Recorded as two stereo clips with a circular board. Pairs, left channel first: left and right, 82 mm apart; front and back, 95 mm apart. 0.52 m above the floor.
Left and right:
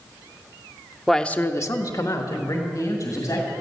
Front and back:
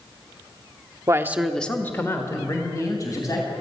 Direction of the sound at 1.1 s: Straight behind.